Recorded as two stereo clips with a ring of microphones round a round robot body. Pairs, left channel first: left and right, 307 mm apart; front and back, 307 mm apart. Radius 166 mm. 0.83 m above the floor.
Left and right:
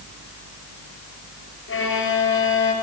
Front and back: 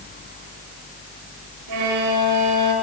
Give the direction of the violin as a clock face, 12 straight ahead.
7 o'clock.